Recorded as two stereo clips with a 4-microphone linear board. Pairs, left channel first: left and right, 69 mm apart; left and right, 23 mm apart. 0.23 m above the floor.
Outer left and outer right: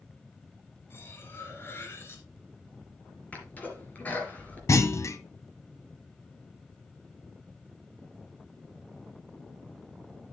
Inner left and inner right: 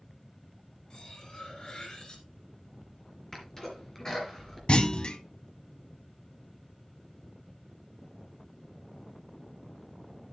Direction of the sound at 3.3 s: 25° left (ahead or behind).